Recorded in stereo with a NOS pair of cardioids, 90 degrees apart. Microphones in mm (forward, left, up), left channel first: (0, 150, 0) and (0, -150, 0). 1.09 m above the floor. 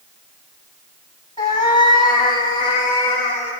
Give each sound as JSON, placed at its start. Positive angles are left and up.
{"t": 1.4, "sound": "a cat meowing", "azimuth_deg": 25, "distance_m": 3.5}